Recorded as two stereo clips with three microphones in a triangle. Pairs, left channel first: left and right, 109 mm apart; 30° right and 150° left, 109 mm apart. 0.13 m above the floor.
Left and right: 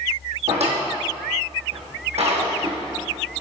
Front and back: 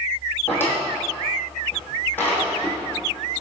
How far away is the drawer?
About 2.5 m.